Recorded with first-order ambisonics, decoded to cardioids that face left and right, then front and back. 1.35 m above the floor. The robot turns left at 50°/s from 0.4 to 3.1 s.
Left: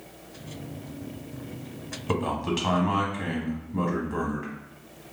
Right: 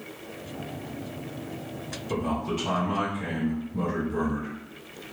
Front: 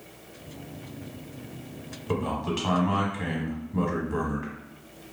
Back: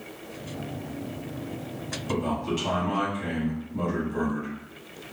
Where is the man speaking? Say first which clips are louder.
Left 2 dB, even; 85° left, 1.0 m; by 4.5 s 35° left, 1.0 m.